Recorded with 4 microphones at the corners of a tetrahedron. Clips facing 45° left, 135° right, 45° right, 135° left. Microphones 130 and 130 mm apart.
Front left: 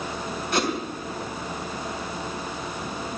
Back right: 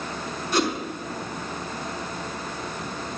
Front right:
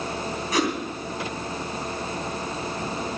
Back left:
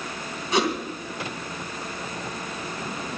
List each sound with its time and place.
0.5 s a whoosh: 75° left, 3 m